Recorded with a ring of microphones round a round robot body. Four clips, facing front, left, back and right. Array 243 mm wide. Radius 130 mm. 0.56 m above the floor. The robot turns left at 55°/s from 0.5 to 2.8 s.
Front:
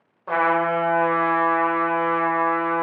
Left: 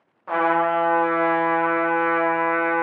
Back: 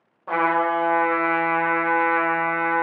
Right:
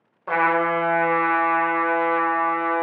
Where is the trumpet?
85° right, 1.2 m; by 2.8 s 150° left, 1.2 m.